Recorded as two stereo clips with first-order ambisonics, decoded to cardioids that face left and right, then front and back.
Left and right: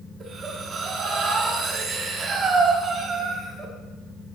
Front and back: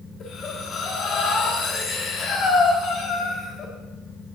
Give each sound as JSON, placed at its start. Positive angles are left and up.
{"t": 0.2, "sound": "breathing", "azimuth_deg": -40, "distance_m": 1.4}